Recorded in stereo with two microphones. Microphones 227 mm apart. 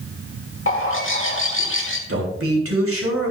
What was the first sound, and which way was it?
A bird, 60° left (ahead or behind).